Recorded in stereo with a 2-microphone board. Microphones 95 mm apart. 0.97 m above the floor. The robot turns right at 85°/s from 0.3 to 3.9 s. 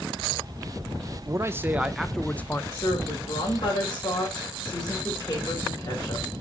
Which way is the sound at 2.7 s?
40° left.